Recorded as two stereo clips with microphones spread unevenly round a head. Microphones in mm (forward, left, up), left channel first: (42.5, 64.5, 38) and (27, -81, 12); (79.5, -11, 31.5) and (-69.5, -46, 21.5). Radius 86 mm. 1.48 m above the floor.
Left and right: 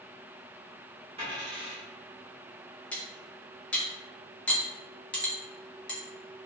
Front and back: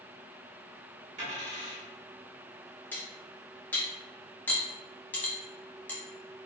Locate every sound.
1.2 s a dropped coin: 155° right, 1.2 m
2.9 s cutlery clinking: 60° left, 0.6 m